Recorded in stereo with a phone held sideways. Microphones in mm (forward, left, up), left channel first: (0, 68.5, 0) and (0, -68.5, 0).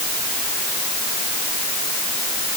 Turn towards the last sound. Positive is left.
No sound to turn to.